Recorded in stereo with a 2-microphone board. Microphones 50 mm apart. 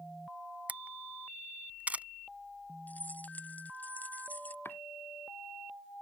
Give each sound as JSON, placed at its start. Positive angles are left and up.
{"t": 0.7, "sound": "a camera shutter", "side_deg": -30}
{"t": 2.9, "sound": "keys jangling", "side_deg": 40}
{"t": 4.7, "sound": "chopping", "side_deg": 50}